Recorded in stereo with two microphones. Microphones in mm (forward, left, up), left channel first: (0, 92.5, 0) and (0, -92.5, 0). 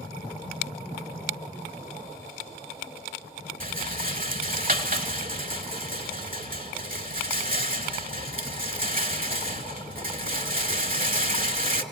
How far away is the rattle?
About 0.9 m.